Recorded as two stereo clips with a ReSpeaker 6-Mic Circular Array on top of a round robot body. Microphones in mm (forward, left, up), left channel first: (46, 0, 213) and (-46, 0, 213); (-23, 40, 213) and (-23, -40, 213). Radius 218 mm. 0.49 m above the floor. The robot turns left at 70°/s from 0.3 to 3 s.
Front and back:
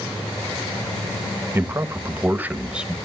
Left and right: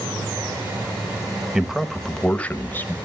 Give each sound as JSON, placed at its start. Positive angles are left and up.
{"t": 1.6, "sound": "a man speaking", "azimuth_deg": -160, "distance_m": 1.4}